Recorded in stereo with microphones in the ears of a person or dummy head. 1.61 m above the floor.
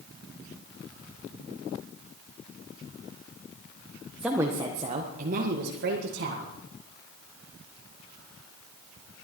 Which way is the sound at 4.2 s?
5° right (ahead or behind).